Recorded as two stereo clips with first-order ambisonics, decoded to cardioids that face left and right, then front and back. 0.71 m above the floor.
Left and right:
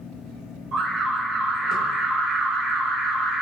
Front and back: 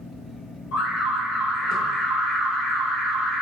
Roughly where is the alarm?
Ahead right.